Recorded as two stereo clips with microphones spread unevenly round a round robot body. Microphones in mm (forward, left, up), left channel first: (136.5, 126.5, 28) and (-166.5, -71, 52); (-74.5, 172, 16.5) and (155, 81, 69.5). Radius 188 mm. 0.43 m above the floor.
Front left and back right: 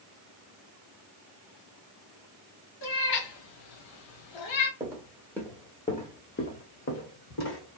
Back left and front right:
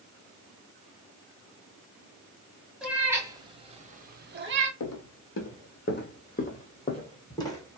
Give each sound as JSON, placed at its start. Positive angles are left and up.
{"t": 2.8, "sound": "a cat meowing", "azimuth_deg": 70, "distance_m": 1.3}
{"t": 4.8, "sound": "footsteps", "azimuth_deg": 135, "distance_m": 1.2}